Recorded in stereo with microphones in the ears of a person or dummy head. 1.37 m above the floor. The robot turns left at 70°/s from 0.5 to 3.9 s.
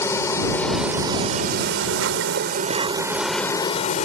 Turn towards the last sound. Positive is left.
turn(degrees=140)